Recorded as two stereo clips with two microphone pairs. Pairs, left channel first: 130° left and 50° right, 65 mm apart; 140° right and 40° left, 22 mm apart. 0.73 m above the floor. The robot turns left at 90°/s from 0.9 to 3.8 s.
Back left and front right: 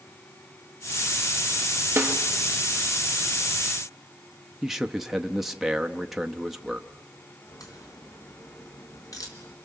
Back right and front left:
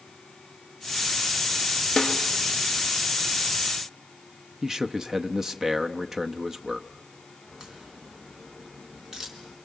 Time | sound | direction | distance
2.0 | a snare drum | 90° right | 1.6 m
4.6 | a man speaking | 35° left | 0.8 m
7.5 | a crack | 100° left | 4 m